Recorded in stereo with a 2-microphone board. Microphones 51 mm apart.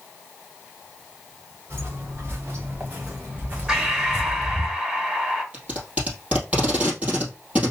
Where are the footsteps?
45° right (ahead or behind), 2 m; by 4.7 s 5° left (ahead or behind), 1.0 m.